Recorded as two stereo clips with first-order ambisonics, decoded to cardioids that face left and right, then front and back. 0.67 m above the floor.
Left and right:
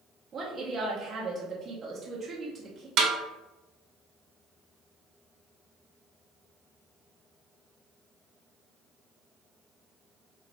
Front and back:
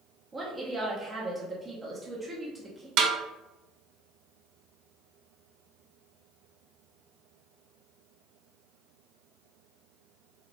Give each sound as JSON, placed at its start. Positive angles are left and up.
{"t": 0.3, "sound": "a woman speaking", "azimuth_deg": -120, "distance_m": 0.8}
{"t": 3.0, "sound": "a snare drum", "azimuth_deg": -145, "distance_m": 1.2}